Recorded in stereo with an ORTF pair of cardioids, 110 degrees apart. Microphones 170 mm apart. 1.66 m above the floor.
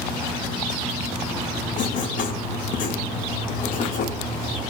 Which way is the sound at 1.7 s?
55° left.